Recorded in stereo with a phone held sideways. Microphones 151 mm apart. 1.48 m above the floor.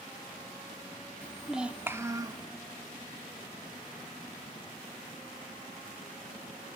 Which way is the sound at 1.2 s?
10° left (ahead or behind).